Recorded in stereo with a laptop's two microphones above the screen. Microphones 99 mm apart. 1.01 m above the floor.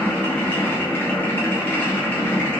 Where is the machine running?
20° left (ahead or behind), 0.8 m.